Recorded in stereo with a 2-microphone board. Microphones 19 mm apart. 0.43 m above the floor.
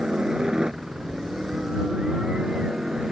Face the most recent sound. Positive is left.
turn(degrees=-45)  # may be behind; listen again after turning